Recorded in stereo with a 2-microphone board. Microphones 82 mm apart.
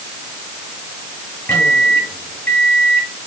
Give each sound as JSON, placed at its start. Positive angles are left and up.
{"t": 1.5, "sound": "a microwave", "side_deg": 25, "distance_m": 2.5}